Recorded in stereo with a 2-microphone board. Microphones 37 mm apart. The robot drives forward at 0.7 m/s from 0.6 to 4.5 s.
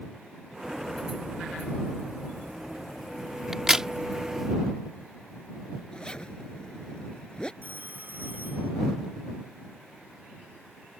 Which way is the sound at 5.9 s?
20° left (ahead or behind).